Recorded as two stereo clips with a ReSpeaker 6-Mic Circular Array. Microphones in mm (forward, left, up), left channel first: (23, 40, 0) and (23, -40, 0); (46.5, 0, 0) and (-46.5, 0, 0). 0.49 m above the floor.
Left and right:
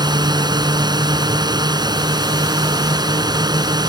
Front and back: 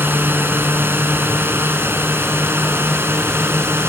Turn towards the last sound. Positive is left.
turn(degrees=-115)